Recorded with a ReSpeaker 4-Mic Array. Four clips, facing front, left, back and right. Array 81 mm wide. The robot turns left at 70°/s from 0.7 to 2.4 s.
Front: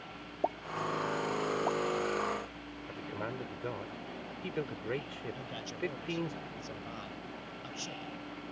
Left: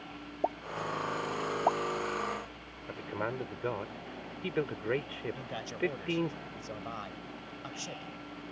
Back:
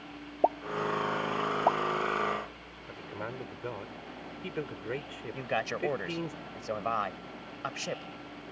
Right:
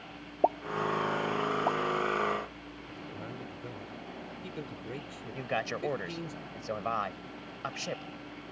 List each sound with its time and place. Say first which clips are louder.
0.4 s a pop: right 6 dB, back 6 dB; 135° right; by 1.8 s 150° left
2.9 s a man speaking: left 8 dB, even; 95° left
5.3 s a man speaking: right 4 dB, back 9 dB; 140° right